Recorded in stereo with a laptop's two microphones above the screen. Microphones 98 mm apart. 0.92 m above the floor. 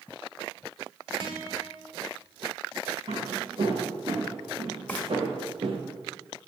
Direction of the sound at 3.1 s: 70° right (ahead or behind).